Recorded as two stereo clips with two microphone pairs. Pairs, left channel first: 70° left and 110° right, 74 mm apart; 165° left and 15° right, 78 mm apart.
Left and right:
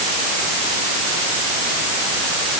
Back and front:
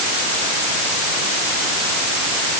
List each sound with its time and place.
Only background noise.